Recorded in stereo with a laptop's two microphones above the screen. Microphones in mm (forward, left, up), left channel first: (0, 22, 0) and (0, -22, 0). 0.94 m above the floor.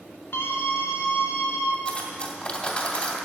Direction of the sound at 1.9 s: 30° left (ahead or behind).